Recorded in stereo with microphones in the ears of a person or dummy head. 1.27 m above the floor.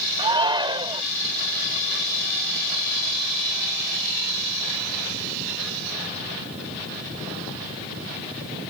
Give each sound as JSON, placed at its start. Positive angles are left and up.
{"t": 0.2, "sound": "a shout", "side_deg": -20}